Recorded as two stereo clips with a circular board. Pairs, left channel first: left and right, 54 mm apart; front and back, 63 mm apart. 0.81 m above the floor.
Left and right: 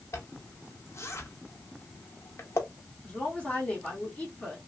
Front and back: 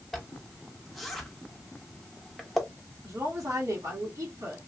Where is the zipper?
90° left, 0.8 m.